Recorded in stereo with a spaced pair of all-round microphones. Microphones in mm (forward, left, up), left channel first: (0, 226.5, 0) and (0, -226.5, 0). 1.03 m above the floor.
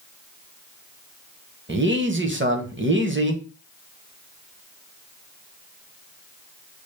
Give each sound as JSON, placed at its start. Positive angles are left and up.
{"t": 1.7, "sound": "a man speaking", "side_deg": -25, "distance_m": 0.7}